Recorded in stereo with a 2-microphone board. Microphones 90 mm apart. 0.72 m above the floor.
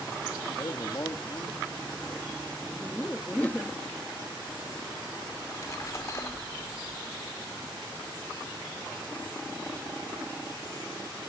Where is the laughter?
15° left (ahead or behind), 0.8 m.